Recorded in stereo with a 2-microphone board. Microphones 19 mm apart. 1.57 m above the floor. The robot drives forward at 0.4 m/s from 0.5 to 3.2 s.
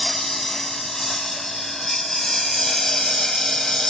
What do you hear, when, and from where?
0.0 s a lawn mower: 25° left (ahead or behind); by 3.9 s 35° left (ahead or behind)